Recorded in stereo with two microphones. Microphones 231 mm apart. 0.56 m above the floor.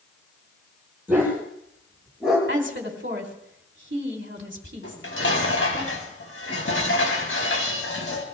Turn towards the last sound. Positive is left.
turn(degrees=65)  # may be behind; listen again after turning